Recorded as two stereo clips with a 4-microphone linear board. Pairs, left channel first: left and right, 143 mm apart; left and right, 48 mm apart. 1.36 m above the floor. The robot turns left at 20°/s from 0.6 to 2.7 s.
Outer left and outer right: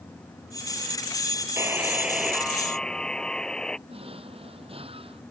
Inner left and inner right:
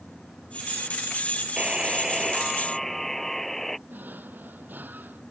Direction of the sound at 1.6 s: 20° right (ahead or behind).